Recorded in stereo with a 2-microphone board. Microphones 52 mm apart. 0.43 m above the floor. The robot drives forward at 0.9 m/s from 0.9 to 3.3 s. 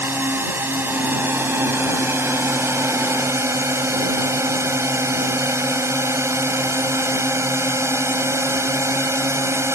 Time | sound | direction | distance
0.0 | a drone | 45° right (ahead or behind) | ?